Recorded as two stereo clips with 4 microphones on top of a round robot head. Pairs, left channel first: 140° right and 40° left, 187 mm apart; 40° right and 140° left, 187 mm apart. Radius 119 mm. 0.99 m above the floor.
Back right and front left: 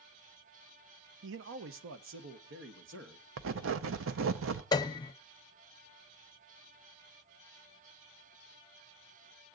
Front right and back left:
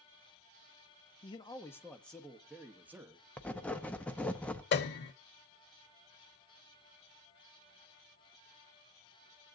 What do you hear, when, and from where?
1.2 s a man speaking: 25° left, 0.7 m; by 3.3 s 60° left, 1.5 m
3.4 s writing: 45° left, 0.7 m
4.7 s a piano: 70° right, 0.7 m